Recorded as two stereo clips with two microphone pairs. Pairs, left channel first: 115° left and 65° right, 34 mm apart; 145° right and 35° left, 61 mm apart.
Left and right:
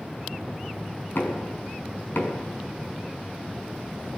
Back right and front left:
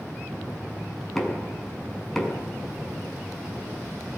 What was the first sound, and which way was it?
Knocking, 130° left.